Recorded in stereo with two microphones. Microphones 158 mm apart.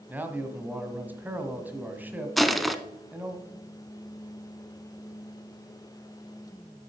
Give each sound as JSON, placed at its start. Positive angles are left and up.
{"t": 0.1, "sound": "a man speaking", "side_deg": -10, "distance_m": 1.6}
{"t": 2.4, "sound": "crushing", "side_deg": 0, "distance_m": 0.7}